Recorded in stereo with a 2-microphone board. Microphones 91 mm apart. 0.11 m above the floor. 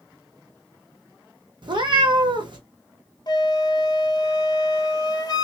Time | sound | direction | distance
1.6 | a cat meowing | 55° right (ahead or behind) | 1.2 m
3.3 | a flute | 45° left (ahead or behind) | 0.5 m